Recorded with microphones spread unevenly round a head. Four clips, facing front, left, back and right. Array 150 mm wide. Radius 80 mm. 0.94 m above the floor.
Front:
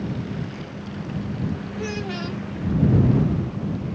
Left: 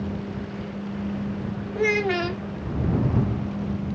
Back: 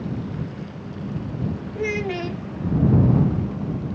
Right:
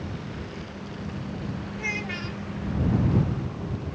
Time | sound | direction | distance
1.8 | a child speaking | 120° left | ?